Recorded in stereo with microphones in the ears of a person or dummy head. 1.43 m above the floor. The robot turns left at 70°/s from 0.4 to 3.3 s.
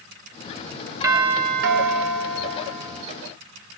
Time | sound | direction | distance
1.0 | a doorbell | 15° right | 2 m